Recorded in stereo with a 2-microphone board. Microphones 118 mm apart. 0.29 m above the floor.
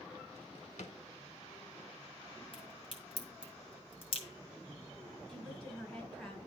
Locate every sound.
0.3 s a drawer: 75° left (ahead or behind), 0.9 m
2.5 s a crack: 50° left (ahead or behind), 2 m
5.3 s a woman speaking: 10° left (ahead or behind), 3.5 m